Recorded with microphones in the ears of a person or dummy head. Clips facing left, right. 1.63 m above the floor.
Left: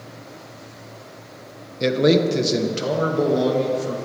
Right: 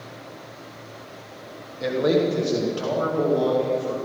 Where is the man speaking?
40° left (ahead or behind), 1.2 m; by 4.0 s 25° left (ahead or behind), 3 m.